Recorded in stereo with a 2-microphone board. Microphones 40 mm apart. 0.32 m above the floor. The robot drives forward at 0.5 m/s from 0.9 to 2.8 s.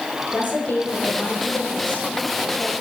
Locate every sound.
0.3 s a woman speaking: 45° left (ahead or behind), 6.5 m; by 2.7 s 40° left (ahead or behind), 7 m